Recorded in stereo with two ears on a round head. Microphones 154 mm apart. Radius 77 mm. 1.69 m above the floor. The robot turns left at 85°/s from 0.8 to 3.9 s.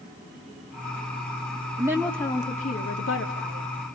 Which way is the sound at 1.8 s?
155° right.